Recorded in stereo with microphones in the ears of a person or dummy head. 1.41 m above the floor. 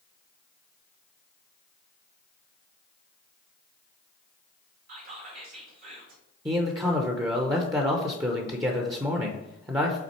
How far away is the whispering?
About 1.7 m.